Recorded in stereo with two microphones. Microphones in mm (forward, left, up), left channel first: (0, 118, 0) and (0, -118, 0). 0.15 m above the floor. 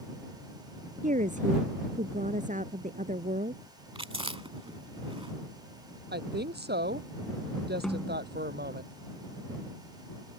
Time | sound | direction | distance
1.0 | a woman speaking | 35° right (ahead or behind) | ?
4.0 | chewing | 25° right (ahead or behind) | ?
6.1 | a woman speaking | 45° right (ahead or behind) | ?
7.8 | a snare drum | centre (ahead or behind) | ?